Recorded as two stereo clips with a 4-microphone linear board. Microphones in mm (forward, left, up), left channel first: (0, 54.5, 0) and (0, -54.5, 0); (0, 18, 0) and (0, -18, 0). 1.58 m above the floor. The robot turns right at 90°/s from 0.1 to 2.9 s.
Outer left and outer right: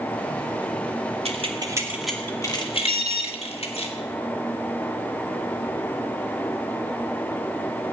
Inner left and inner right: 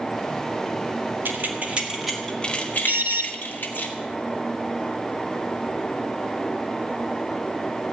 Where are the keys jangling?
65° right (ahead or behind), 2 m; by 3.9 s 65° left (ahead or behind), 2 m.